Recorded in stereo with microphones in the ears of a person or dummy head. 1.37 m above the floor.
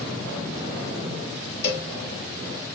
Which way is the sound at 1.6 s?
35° left (ahead or behind).